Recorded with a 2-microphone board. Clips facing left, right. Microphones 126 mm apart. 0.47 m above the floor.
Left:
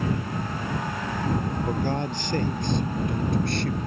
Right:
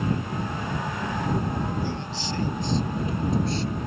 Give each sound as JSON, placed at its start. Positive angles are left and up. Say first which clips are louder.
{"t": 1.7, "sound": "a man speaking", "louder": "left 4 dB", "side_deg": 50}